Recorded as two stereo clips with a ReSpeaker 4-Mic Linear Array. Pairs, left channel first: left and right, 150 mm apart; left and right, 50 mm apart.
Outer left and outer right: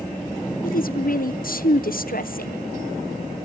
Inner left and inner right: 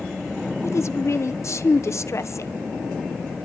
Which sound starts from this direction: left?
A woman speaking, at 0.6 s.